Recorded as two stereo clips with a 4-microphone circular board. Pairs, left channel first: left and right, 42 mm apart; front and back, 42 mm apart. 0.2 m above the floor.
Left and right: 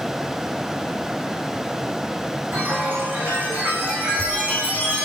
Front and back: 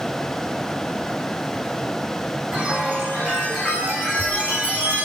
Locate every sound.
2.5 s a chime: 130° right, 5 m